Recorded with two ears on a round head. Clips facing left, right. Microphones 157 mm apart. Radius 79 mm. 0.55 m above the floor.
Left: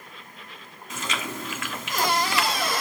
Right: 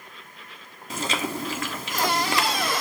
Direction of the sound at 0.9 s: 30° right (ahead or behind).